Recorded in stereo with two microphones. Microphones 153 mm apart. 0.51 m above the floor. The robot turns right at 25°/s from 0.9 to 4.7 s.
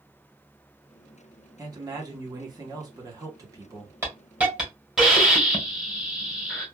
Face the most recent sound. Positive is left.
turn(degrees=-5)  # may be behind; listen again after turning